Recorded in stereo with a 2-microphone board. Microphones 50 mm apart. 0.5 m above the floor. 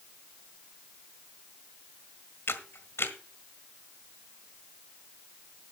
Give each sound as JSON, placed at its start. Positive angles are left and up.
{"t": 2.5, "sound": "a camera shutter", "side_deg": 55, "distance_m": 1.6}